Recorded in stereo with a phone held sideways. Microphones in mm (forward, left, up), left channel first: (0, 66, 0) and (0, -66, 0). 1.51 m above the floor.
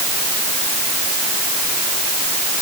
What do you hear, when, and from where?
Only background noise.